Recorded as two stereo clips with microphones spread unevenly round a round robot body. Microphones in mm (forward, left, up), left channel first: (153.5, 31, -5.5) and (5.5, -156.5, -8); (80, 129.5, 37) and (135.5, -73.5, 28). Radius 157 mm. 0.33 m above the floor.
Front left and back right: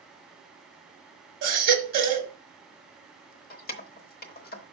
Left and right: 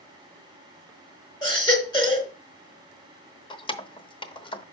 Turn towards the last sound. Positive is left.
turn(degrees=50)